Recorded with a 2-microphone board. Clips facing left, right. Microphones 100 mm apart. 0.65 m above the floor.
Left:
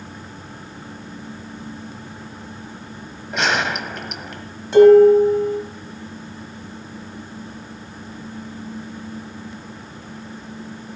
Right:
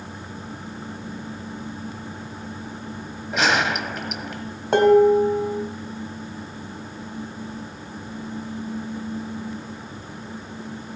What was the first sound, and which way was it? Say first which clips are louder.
A gunshot: even; centre (ahead or behind).